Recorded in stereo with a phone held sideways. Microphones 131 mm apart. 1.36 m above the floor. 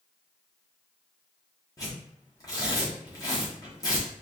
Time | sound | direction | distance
1.8 | tearing paper | 25° left (ahead or behind) | 1.2 m